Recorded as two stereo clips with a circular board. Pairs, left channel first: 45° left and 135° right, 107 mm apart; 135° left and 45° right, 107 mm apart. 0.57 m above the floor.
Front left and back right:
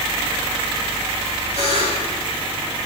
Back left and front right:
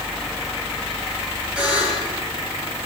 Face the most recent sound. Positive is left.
turn(degrees=35)